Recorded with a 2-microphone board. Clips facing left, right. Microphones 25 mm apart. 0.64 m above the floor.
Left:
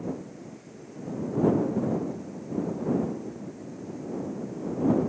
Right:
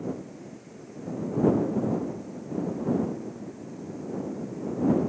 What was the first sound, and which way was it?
Only background noise.